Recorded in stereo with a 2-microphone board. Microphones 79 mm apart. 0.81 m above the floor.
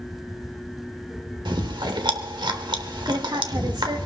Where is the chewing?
85° right, 1.4 m.